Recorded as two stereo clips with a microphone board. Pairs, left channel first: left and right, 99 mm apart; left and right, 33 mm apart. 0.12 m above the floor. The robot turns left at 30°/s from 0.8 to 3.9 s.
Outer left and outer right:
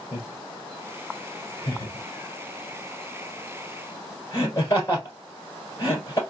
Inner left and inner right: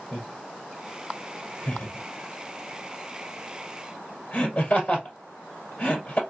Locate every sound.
0.1 s laughter: 30° left (ahead or behind), 1.7 m